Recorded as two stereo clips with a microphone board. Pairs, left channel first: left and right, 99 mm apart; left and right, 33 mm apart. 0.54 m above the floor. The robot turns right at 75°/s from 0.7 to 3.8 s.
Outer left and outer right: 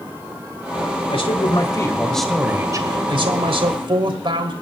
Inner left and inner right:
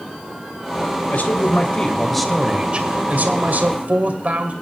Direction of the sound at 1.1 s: 95° left.